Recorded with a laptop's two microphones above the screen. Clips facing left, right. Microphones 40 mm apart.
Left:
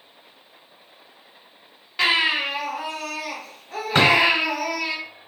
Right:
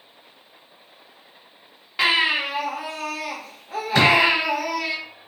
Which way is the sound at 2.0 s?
10° right (ahead or behind).